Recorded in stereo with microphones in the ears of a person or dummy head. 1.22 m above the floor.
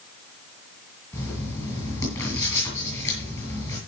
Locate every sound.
1.1 s writing: 20° left (ahead or behind), 7 m